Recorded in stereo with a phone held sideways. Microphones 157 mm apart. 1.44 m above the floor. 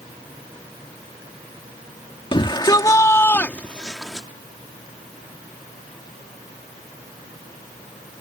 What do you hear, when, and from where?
2.3 s a shout: 35° left (ahead or behind); by 4.3 s centre (ahead or behind)